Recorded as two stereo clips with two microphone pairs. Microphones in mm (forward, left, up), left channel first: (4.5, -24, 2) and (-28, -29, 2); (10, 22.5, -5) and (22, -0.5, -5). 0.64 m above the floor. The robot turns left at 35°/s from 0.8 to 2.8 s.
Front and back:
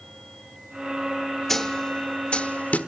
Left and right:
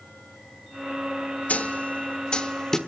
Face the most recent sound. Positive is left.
turn(degrees=45)